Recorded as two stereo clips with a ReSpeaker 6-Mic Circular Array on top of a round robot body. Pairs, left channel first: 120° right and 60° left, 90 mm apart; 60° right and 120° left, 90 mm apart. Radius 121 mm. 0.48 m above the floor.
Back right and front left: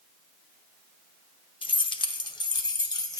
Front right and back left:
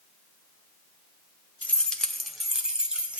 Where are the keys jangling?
130° right, 0.9 m; by 3.2 s 165° right, 1.6 m.